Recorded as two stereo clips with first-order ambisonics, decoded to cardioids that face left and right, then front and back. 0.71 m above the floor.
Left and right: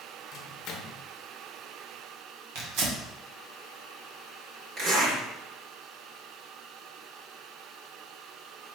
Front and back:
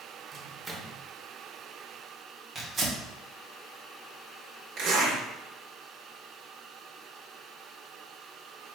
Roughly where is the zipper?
Behind right.